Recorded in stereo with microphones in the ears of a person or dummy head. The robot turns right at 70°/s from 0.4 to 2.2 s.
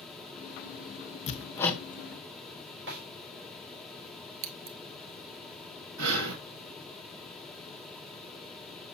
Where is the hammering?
35° left (ahead or behind), 0.8 m; by 1.8 s 5° right (ahead or behind), 0.8 m.